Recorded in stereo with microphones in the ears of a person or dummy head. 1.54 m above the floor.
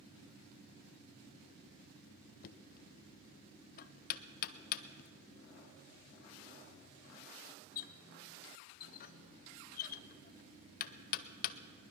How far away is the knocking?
About 0.6 m.